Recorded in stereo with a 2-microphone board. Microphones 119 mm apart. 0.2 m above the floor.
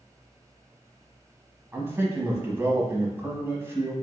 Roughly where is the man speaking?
Right.